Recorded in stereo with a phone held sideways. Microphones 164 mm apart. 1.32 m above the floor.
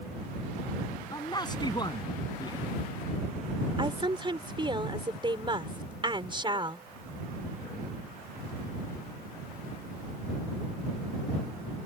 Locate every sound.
1.1 s a man speaking: 25° left (ahead or behind)
3.8 s a woman speaking: 30° right (ahead or behind)